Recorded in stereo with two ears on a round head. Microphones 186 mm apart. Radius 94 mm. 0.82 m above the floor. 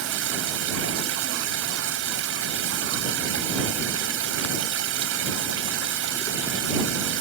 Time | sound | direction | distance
0.0 | running water | 75° right (ahead or behind) | ?